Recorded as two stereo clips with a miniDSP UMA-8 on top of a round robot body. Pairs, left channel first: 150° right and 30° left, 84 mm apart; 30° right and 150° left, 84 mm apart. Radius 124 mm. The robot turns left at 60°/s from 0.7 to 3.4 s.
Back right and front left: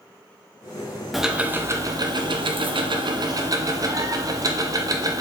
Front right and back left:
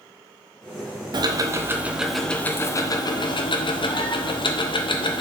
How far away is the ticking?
About 0.6 m.